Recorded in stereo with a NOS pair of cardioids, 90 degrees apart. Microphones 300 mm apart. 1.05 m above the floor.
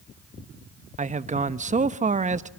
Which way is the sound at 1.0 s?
25° right.